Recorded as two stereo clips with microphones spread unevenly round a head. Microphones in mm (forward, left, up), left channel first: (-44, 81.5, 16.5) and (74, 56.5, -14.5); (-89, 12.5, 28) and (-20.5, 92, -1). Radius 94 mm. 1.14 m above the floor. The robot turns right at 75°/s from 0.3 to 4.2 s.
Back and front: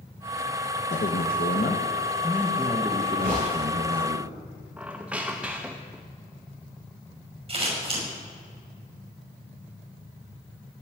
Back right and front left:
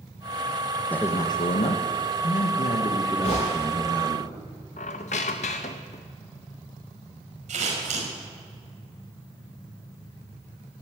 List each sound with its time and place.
0.9 s a man speaking: 145° left, 1.6 m; by 4.2 s 30° left, 1.6 m
3.2 s a gunshot: 75° right, 8 m; by 3.5 s 60° right, 8 m
4.8 s a squeak: 100° right, 0.7 m
7.5 s scissors: 30° left, 6 m